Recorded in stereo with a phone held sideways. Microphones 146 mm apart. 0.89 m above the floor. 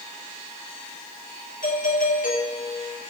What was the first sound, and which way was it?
A doorbell, 75° left (ahead or behind).